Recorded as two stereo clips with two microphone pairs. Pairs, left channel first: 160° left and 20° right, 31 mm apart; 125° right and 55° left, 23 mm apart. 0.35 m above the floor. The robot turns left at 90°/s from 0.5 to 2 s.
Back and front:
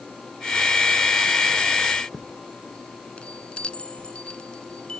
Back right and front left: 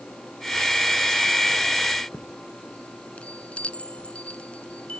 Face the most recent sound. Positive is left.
turn(degrees=-145)